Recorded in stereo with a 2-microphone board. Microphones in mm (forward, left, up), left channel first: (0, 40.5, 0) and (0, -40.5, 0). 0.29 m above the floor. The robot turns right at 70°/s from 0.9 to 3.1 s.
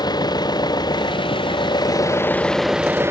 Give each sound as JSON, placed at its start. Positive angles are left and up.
{"t": 0.0, "sound": "an engine running", "azimuth_deg": 60}